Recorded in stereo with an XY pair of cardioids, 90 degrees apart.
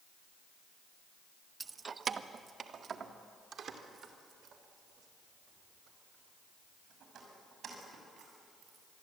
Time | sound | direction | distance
1.6 | keys jangling | 35° right | 0.7 m